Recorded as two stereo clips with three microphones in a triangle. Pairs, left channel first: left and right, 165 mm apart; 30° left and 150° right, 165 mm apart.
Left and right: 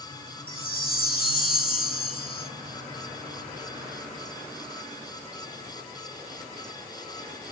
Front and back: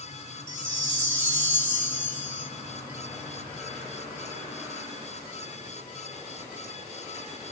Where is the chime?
110° left, 4.5 m.